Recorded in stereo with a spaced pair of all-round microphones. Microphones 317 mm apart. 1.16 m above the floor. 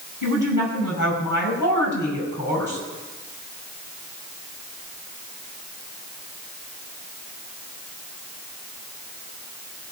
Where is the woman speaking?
75° left (ahead or behind), 6 m.